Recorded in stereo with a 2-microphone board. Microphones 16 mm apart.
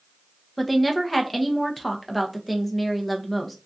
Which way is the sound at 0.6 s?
Centre (ahead or behind).